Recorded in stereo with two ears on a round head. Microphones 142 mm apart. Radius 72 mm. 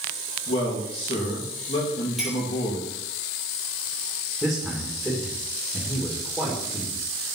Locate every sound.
0.5 s a man speaking: 35° left (ahead or behind), 3 m
2.2 s a clink: centre (ahead or behind), 3.5 m
4.4 s a man speaking: centre (ahead or behind), 1.9 m